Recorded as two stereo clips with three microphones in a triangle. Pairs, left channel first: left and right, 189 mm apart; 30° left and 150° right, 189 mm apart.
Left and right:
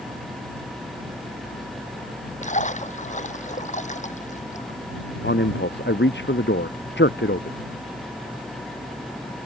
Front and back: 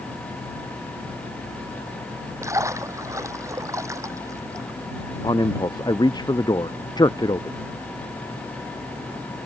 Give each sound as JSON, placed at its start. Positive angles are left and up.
{"t": 2.4, "sound": "a splash", "azimuth_deg": 135}
{"t": 5.2, "sound": "a man speaking", "azimuth_deg": 95}